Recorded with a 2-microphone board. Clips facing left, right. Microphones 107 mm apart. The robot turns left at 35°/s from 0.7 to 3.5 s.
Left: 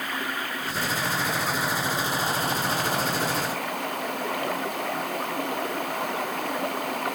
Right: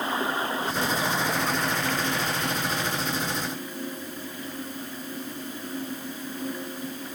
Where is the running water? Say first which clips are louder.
Right 4 dB; 155° right; by 7.2 s 110° left.